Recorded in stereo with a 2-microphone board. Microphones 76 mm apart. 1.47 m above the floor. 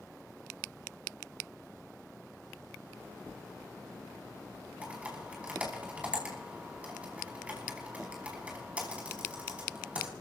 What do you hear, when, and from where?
4.8 s typing on a keyboard: 20° right (ahead or behind), 5 m